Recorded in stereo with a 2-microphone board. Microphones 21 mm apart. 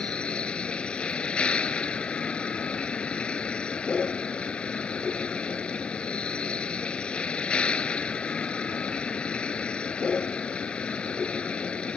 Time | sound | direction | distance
0.0 | a vehicle | 70° left (ahead or behind) | ?